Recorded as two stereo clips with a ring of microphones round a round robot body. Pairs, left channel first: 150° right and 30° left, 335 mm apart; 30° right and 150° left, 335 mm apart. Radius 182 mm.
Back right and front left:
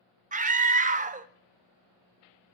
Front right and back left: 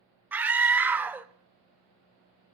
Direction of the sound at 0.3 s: 70° left.